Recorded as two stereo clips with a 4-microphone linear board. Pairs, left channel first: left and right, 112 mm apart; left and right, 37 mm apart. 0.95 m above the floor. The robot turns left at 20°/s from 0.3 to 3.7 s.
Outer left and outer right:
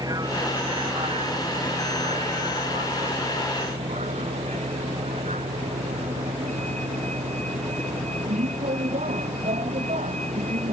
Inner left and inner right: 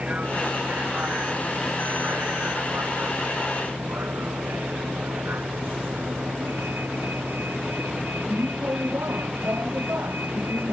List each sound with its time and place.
0.0 s a vehicle: 35° right; by 10.7 s 100° right